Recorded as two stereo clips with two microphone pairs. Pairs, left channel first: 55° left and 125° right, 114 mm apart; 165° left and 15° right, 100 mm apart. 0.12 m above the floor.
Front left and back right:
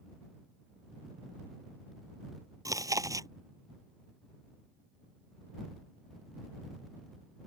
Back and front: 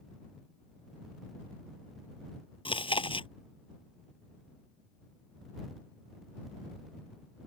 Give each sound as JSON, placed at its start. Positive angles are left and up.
{"t": 2.6, "sound": "chewing", "azimuth_deg": 175}